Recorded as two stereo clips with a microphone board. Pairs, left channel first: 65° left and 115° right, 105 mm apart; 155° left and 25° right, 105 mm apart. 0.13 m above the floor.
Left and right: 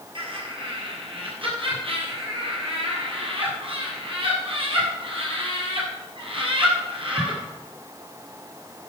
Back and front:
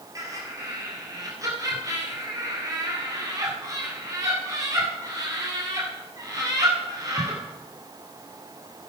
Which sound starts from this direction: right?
Laughter, at 0.1 s.